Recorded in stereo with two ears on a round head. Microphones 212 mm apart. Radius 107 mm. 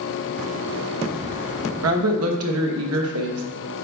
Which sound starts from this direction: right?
A woman speaking, at 1.8 s.